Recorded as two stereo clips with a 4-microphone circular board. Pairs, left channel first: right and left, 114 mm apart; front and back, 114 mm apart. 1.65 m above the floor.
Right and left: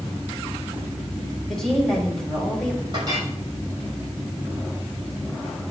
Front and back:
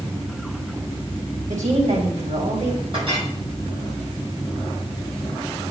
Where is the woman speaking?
175° right, 3.5 m.